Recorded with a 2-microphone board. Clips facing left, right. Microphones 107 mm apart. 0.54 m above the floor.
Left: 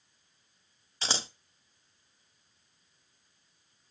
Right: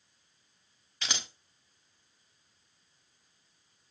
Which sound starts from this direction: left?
Scissors, at 1.0 s.